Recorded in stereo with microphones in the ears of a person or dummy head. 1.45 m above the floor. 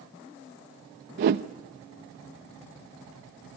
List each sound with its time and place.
1.2 s a whoosh: 35° right (ahead or behind), 0.8 m